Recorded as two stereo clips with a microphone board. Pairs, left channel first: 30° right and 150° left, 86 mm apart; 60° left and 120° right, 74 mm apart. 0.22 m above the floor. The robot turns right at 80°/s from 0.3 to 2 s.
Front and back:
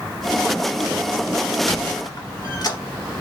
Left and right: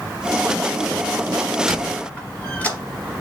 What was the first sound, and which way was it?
A squeak, 30° right.